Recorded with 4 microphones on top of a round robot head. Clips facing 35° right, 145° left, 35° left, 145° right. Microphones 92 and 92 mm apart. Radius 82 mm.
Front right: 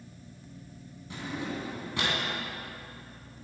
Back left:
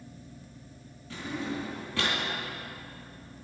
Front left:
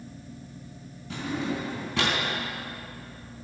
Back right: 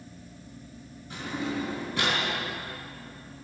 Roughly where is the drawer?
Ahead left.